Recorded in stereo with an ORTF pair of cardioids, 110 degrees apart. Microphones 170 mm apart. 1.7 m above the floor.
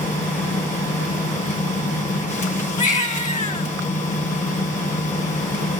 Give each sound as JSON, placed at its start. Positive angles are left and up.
{"t": 0.0, "sound": "a machine running", "azimuth_deg": 50, "distance_m": 1.8}
{"t": 2.8, "sound": "a baby crying", "azimuth_deg": 45, "distance_m": 2.5}